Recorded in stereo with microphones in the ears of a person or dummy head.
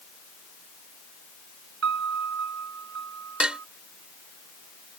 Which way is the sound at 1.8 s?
60° right (ahead or behind).